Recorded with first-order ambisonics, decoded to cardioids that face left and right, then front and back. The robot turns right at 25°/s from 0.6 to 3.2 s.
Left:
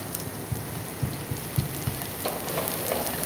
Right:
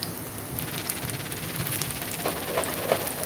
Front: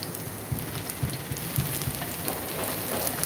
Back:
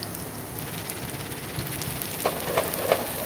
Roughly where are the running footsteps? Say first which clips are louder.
Right 1 dB, back 1 dB; ahead left.